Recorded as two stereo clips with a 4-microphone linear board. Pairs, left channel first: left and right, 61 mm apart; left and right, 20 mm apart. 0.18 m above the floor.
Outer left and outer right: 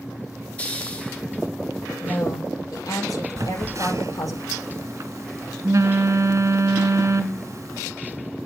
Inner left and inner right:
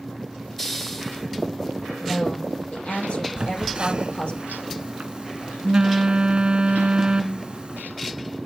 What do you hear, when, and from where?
0.6 s a hiss: 20° left (ahead or behind), 1.9 m
2.0 s a woman speaking: 80° left, 8 m
3.4 s a phone buzzing: 55° right (ahead or behind), 0.6 m